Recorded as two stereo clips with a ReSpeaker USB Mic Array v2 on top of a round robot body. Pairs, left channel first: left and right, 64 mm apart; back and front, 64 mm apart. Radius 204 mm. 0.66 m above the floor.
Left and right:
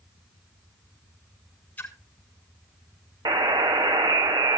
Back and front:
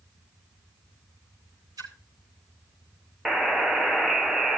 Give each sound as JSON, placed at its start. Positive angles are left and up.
{"t": 1.8, "sound": "a splash", "azimuth_deg": 20, "distance_m": 7.5}
{"t": 3.2, "sound": "a buzzer", "azimuth_deg": -85, "distance_m": 1.0}